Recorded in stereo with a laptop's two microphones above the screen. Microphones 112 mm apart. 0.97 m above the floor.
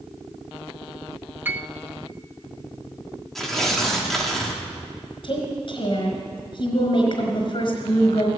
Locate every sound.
1.4 s a piano: 15° right (ahead or behind), 0.6 m
3.4 s tearing paper: 5° left (ahead or behind), 1.3 m
5.2 s a woman speaking: 55° left (ahead or behind), 4.5 m